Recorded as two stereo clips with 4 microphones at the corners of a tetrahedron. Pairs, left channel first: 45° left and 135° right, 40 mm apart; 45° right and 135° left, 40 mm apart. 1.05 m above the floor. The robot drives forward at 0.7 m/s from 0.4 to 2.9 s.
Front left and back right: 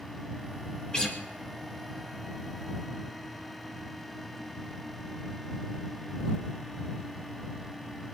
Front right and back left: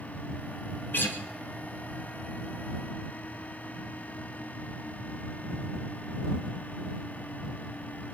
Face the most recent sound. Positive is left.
turn(degrees=-60)